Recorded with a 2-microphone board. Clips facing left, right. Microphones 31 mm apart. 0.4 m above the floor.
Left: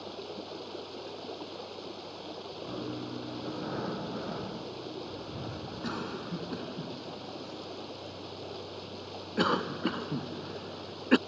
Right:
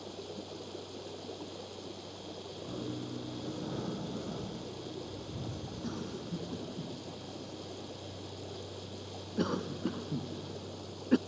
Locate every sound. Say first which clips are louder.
0.0 s running water: left 3 dB; 35° left (ahead or behind)
3.4 s breathing: left 4 dB; 50° left (ahead or behind)
5.8 s a cough: left 4 dB; 75° left (ahead or behind)